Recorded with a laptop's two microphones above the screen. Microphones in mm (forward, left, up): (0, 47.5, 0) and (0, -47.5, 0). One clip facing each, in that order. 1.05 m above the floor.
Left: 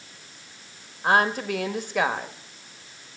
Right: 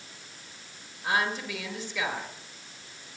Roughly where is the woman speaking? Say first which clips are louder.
Left 7 dB; left.